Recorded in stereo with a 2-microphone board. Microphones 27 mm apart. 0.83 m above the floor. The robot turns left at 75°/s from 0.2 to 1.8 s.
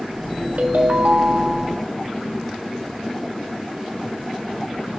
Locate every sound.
0.6 s a ringtone: 70° right, 1.5 m; by 1.8 s 160° right, 1.5 m